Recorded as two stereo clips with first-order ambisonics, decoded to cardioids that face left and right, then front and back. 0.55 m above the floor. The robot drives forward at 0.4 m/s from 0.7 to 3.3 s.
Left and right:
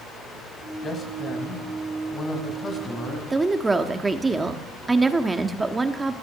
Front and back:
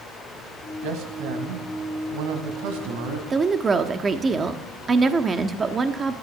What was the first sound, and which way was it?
A man speaking, 155° left.